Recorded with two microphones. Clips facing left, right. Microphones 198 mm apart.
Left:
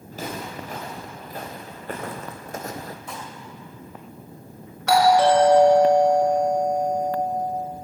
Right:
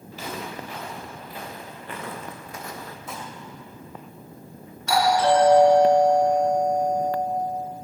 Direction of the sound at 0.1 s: 45° left (ahead or behind).